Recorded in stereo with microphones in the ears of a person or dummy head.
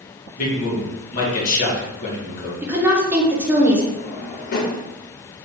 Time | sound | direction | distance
0.4 | a man speaking | 45° left (ahead or behind) | 1.7 m
2.6 | a woman speaking | 10° right (ahead or behind) | 0.8 m
4.0 | a drawer | 55° left (ahead or behind) | 0.9 m